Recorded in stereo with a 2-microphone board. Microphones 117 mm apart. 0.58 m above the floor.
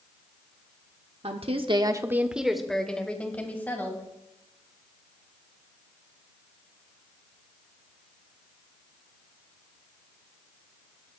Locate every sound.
1.2 s a woman speaking: 55° right (ahead or behind), 1.2 m; by 4.0 s 15° left (ahead or behind), 3.5 m